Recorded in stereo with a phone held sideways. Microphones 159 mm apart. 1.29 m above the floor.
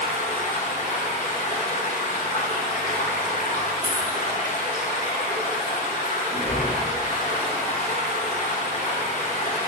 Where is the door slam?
45° right (ahead or behind), 1.5 m.